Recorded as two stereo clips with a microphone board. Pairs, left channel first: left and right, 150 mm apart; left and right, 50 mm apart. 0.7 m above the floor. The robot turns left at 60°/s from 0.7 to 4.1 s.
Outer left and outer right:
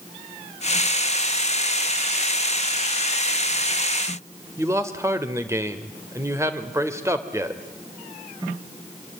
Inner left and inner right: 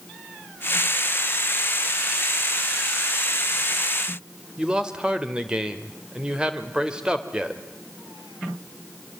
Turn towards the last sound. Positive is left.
turn(degrees=-20)  # may be behind; listen again after turning